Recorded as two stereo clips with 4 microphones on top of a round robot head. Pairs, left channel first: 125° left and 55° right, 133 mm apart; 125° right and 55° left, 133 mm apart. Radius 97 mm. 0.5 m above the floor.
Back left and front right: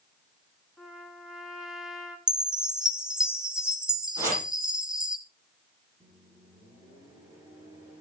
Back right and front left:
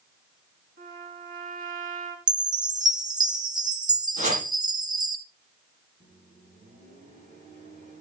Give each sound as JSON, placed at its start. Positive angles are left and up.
{"t": 0.8, "sound": "a trumpet", "azimuth_deg": 35, "distance_m": 2.0}
{"t": 2.3, "sound": "a chime", "azimuth_deg": 25, "distance_m": 1.3}
{"t": 4.2, "sound": "chopping", "azimuth_deg": 20, "distance_m": 8.5}
{"t": 6.0, "sound": "a microwave", "azimuth_deg": 20, "distance_m": 9.0}